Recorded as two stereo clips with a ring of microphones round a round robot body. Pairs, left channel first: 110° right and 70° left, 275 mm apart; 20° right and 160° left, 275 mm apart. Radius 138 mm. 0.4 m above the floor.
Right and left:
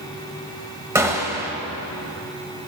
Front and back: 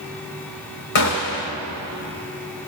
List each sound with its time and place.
0.9 s a gunshot: 10° right, 1.2 m